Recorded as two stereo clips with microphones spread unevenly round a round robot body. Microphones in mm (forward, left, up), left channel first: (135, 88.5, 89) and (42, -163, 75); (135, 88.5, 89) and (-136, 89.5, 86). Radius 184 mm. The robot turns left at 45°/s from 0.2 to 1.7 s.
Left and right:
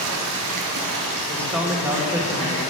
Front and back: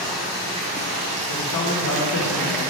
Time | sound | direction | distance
0.0 | running water | 90° right | 0.7 m
1.3 | a man speaking | 10° right | 1.1 m